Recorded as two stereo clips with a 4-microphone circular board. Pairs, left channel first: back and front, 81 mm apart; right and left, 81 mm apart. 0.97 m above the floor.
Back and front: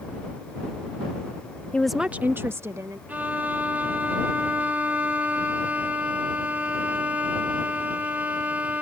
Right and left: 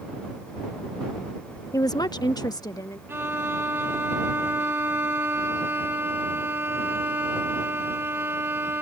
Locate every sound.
1.7 s a woman speaking: 115° right; by 3.0 s 50° right
3.1 s a violin: 55° left